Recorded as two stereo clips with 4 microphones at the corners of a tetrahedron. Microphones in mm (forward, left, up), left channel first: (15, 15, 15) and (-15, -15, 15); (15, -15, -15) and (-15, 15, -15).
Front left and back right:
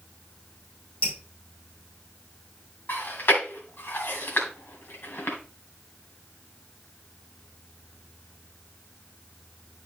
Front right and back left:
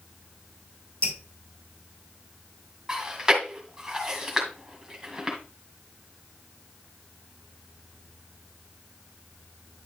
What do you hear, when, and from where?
1.0 s dripping: 5° right, 3 m
2.9 s chewing: 60° left, 1.8 m